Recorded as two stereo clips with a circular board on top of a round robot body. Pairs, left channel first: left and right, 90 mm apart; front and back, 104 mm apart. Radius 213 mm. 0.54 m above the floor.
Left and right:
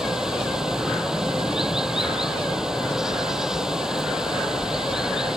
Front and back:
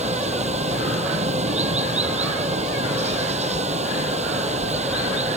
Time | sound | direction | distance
0.0 | running water | 175° right | ?